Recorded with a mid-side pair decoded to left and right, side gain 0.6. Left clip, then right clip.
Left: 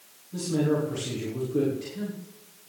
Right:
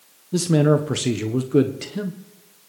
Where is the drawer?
No drawer in this recording.